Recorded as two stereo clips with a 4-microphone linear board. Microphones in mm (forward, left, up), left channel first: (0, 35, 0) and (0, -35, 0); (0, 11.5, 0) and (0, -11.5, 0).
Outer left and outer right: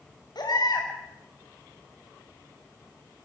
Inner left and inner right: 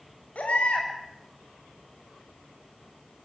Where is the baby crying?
90° left, 6.5 m.